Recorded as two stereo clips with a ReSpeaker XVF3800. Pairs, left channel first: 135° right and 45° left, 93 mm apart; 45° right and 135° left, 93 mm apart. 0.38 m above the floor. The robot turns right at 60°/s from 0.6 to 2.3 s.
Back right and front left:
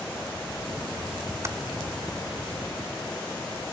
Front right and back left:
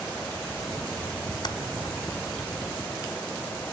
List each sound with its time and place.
1.4 s typing on a keyboard: 15° right, 1.9 m; by 1.6 s 5° right, 1.9 m